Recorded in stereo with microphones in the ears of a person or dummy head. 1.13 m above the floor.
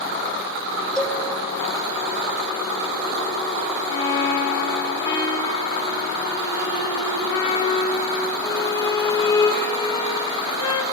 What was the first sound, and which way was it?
A cowbell, 5° left (ahead or behind).